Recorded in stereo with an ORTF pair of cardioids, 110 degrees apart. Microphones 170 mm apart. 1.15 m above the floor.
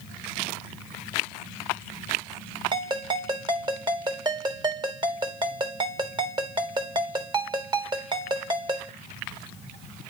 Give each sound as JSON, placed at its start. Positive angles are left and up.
{"t": 2.7, "sound": "a ringtone", "azimuth_deg": -25, "distance_m": 1.9}